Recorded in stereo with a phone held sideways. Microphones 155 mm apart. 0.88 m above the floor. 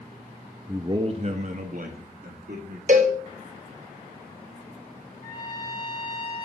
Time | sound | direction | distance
0.7 | a man speaking | 15° right (ahead or behind) | 0.5 m
2.9 | a cowbell | 55° right (ahead or behind) | 0.8 m
5.2 | a trumpet | 60° left (ahead or behind) | 1.4 m